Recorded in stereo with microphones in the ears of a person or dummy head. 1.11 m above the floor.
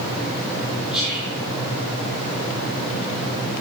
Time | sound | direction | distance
0.9 | whispering | centre (ahead or behind) | 2.5 m